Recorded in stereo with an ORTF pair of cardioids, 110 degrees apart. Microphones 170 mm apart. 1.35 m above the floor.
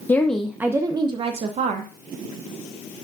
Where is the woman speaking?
15° left, 0.7 m; by 1.9 s 50° right, 1.1 m.